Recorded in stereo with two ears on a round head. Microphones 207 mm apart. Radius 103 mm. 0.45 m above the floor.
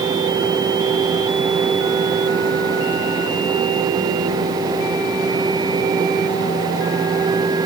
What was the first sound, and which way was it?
Only background noise.